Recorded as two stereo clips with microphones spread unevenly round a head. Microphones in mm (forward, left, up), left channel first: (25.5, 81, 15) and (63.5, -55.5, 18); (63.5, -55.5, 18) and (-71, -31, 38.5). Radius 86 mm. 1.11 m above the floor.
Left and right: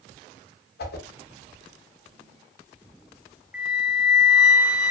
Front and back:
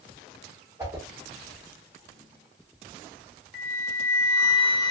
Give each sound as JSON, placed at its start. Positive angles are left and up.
{"t": 0.8, "sound": "a whoosh", "azimuth_deg": 100, "distance_m": 0.7}
{"t": 3.5, "sound": "a flute", "azimuth_deg": 10, "distance_m": 0.8}